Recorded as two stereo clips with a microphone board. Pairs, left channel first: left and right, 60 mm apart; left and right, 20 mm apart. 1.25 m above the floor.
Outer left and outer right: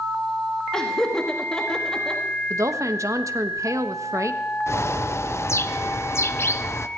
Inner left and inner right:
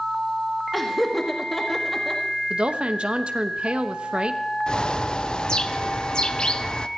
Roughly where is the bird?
Left.